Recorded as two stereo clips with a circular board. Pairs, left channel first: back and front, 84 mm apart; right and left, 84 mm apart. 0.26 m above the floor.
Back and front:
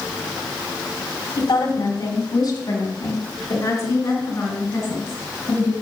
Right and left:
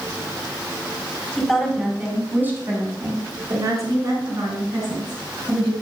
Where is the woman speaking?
175° right, 2.5 m; by 5.7 s 120° left, 6.5 m.